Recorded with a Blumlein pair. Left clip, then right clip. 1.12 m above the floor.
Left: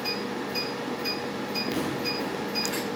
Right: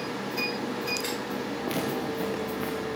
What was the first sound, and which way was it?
Footsteps, 45° right.